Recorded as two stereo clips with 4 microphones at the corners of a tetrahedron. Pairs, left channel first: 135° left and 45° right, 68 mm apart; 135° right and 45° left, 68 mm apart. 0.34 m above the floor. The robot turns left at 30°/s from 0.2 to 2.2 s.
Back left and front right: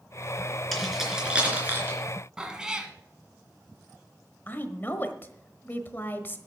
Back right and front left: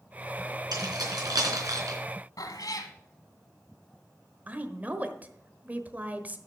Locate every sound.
0.7 s keys jangling: 50° left, 3.5 m; by 2.0 s 10° left, 3.5 m
2.4 s a cat meowing: 125° right, 1.4 m
4.5 s a woman speaking: 95° left, 1.1 m